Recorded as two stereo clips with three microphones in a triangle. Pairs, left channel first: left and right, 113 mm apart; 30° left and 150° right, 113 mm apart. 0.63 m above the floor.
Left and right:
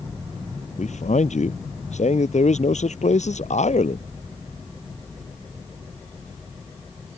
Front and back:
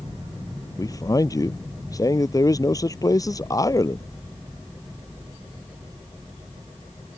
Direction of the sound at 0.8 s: 90° left.